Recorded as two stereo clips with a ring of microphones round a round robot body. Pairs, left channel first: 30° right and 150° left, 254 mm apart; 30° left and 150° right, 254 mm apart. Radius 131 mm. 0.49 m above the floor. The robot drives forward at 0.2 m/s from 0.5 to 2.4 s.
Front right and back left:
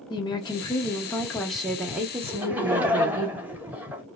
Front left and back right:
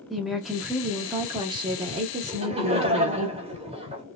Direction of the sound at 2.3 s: 135° right.